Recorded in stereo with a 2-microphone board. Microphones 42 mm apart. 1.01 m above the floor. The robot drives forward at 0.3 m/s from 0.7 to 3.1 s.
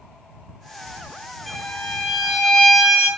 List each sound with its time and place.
1.5 s a violin: 5° left (ahead or behind), 1.7 m